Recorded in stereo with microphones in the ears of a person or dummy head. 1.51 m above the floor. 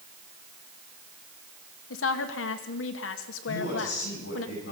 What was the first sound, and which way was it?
A woman speaking, 70° left (ahead or behind).